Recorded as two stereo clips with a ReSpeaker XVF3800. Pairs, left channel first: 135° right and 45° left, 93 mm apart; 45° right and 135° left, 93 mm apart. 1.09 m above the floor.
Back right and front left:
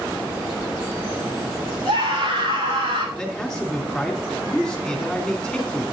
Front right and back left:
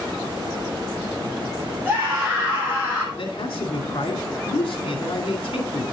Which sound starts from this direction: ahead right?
A man speaking, at 3.1 s.